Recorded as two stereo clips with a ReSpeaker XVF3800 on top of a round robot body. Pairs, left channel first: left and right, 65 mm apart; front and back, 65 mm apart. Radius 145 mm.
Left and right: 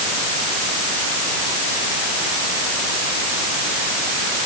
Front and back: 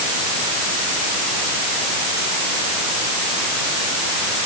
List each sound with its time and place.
Only background noise.